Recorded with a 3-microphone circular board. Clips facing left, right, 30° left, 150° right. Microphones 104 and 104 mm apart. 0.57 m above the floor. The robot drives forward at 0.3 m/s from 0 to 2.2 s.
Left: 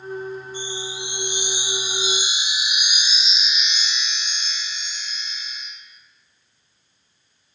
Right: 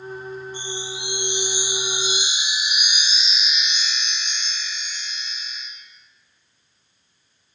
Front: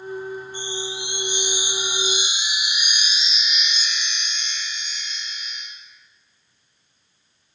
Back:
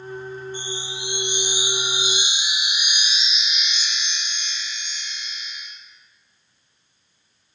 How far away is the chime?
About 1.3 m.